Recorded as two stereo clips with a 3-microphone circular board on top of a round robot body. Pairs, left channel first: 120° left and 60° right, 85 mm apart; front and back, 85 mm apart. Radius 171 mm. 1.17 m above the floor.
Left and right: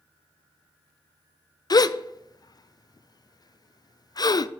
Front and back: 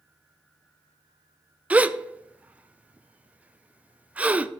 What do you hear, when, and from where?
1.7 s a gasp: 115° left, 0.6 m